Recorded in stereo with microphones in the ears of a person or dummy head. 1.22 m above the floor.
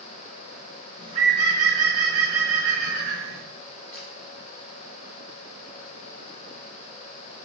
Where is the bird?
35° right (ahead or behind), 4 m.